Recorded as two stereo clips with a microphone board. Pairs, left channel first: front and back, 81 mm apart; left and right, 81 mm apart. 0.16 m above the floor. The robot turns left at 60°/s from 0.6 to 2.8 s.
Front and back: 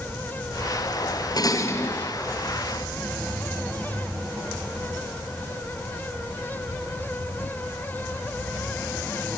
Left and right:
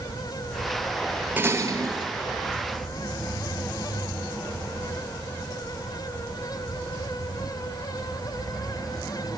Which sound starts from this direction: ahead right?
Dishes clattering, at 1.4 s.